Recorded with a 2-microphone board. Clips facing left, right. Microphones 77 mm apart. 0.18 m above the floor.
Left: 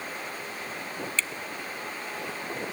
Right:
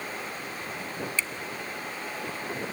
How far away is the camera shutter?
About 0.6 m.